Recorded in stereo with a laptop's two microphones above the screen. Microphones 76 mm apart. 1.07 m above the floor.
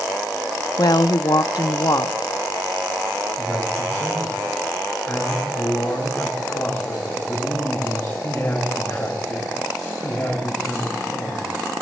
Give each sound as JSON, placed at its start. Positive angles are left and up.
{"t": 0.8, "sound": "a woman speaking", "side_deg": 60, "distance_m": 0.7}
{"t": 3.4, "sound": "a man speaking", "side_deg": 30, "distance_m": 5.0}